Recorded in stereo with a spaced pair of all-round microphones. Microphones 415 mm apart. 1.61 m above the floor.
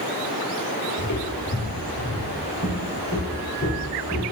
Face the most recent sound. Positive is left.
turn(degrees=35)  # may be behind; listen again after turning